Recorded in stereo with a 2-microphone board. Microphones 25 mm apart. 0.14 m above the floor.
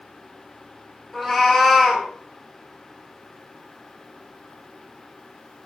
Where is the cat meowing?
5° left (ahead or behind), 1.2 m.